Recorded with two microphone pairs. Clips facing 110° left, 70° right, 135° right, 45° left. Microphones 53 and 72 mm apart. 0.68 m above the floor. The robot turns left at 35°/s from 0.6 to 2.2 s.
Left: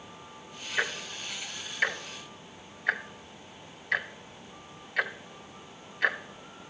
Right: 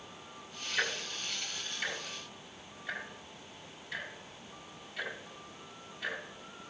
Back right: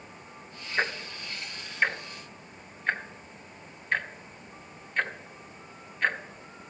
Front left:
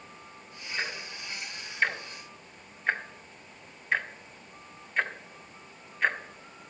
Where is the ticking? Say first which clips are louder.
Left 3 dB, back right 6 dB; straight behind, 0.6 m; by 6.7 s 130° left, 0.6 m.